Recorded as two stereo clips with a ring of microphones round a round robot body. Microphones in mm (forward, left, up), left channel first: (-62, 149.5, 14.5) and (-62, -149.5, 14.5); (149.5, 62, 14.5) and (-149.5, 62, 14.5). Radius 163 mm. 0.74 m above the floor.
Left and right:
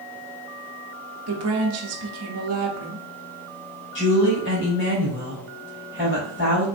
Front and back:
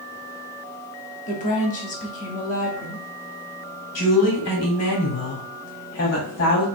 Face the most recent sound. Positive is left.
turn(degrees=35)